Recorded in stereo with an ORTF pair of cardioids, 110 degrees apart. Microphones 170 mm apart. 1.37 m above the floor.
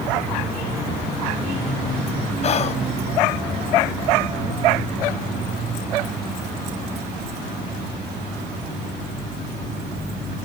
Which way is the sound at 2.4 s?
40° left.